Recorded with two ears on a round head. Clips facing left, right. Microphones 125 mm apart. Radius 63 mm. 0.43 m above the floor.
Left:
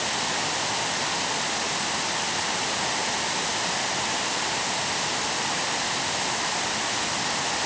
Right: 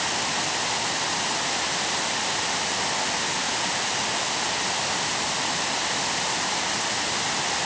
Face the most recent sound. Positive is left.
No sound to turn to.